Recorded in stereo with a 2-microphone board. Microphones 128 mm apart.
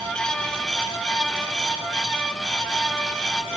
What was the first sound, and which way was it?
Only background noise.